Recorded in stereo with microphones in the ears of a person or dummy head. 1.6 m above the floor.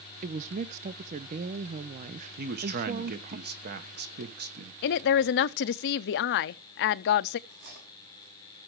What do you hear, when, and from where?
0.2 s a woman speaking: 45° right (ahead or behind), 0.5 m
2.4 s a man speaking: 55° right (ahead or behind), 1.1 m
4.8 s a woman speaking: 60° left (ahead or behind), 0.5 m
7.5 s cutlery clinking: 60° right (ahead or behind), 7 m